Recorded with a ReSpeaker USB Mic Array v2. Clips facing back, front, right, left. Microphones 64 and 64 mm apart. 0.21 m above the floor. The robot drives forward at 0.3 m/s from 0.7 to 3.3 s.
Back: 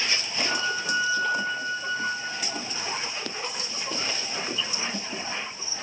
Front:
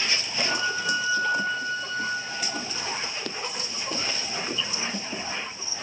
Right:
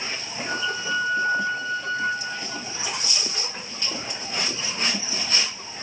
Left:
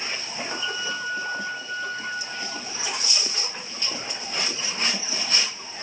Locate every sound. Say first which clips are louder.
0.5 s a flute: front 1 dB, right 4 dB; 95° right, 3 m; by 2.5 s 105° right, 3 m